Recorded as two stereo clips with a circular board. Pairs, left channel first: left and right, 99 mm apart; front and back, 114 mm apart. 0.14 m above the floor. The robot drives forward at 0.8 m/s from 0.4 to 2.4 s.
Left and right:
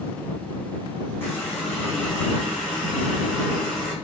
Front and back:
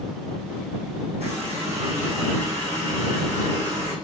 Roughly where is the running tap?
Behind.